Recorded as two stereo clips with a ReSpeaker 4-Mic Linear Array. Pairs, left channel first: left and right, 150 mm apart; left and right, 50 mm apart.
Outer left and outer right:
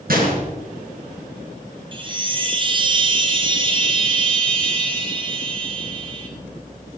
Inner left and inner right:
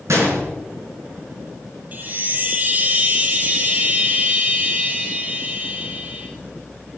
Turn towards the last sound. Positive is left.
turn(degrees=-35)  # may be behind; listen again after turning